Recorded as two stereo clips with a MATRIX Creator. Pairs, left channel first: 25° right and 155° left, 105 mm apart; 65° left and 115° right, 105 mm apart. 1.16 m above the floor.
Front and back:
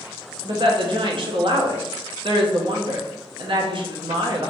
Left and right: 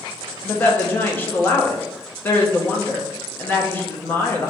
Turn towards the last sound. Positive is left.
turn(degrees=135)